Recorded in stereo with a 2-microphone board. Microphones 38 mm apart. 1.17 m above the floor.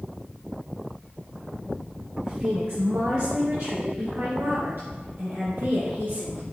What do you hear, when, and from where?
2.2 s a woman speaking: 25° right (ahead or behind), 0.7 m; by 6.4 s 55° right (ahead or behind), 4 m